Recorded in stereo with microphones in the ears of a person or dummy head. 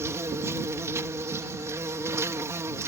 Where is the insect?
20° right (ahead or behind).